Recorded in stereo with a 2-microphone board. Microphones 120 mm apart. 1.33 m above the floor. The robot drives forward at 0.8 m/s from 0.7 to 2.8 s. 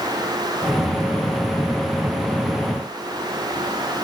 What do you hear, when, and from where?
Only background noise.